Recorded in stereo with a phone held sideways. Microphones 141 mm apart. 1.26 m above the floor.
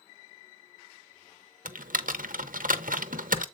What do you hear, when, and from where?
1.6 s typing on a keyboard: 75° right (ahead or behind), 0.6 m